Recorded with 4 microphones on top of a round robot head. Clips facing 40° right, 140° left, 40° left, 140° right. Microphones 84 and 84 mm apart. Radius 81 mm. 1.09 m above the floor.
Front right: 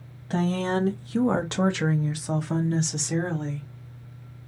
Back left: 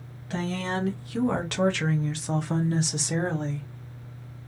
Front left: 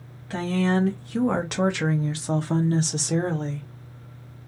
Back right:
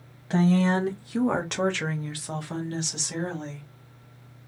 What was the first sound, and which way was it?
A woman speaking, 80° right.